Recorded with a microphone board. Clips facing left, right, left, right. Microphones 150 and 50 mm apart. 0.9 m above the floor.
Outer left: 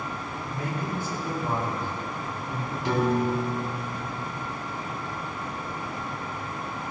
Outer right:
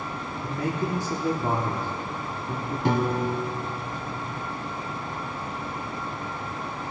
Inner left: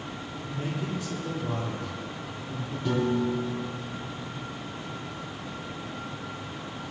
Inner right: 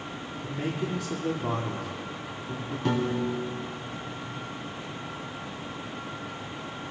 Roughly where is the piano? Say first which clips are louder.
Outer left 1 dB, inner left 1 dB; right.